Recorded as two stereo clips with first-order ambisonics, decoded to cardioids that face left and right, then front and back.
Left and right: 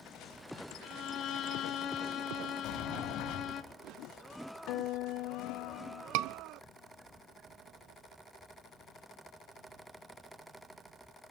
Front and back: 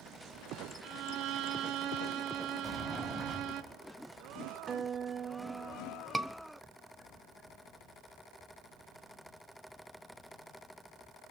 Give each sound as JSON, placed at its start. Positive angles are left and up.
{"t": 0.8, "sound": "a violin", "azimuth_deg": 145, "distance_m": 1.4}
{"t": 2.6, "sound": "a sliding door", "azimuth_deg": 90, "distance_m": 3.0}
{"t": 4.7, "sound": "a guitar", "azimuth_deg": 115, "distance_m": 1.1}
{"t": 6.1, "sound": "a scream", "azimuth_deg": -95, "distance_m": 0.9}